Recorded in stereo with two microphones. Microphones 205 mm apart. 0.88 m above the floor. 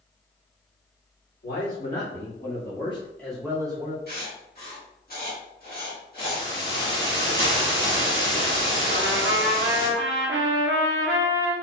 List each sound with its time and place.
1.4 s a man speaking: 65° left (ahead or behind), 1.9 m; by 4.0 s 30° right (ahead or behind), 1.1 m
4.1 s writing: 50° left (ahead or behind), 1.4 m
6.2 s a hiss: 55° left (ahead or behind), 1.7 m
8.9 s a trumpet: 75° right (ahead or behind), 0.7 m